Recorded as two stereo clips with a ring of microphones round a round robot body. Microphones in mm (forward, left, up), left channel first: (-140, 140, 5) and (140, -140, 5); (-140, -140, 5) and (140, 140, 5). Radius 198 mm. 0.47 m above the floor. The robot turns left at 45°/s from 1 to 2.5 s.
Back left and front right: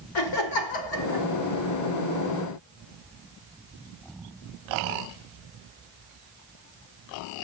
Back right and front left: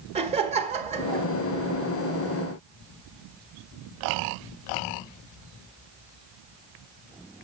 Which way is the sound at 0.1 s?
115° left.